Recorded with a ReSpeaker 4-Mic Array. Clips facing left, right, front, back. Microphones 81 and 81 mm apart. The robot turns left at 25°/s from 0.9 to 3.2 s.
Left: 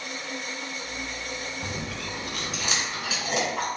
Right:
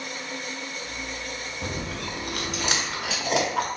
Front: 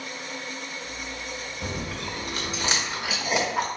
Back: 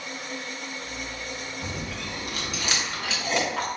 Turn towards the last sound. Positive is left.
turn(degrees=-75)